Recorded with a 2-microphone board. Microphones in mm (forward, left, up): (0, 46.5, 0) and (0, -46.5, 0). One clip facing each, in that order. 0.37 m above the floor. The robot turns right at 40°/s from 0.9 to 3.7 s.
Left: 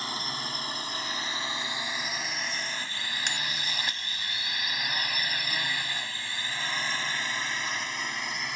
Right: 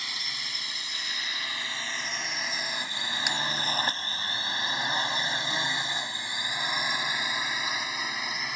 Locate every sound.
0.0 s a drone: 35° left (ahead or behind); by 8.6 s centre (ahead or behind)
3.3 s a bell: 5° right (ahead or behind); by 3.4 s 10° right (ahead or behind)